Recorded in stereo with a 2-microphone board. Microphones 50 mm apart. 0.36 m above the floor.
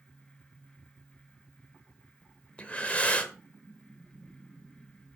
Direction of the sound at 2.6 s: 25° left (ahead or behind).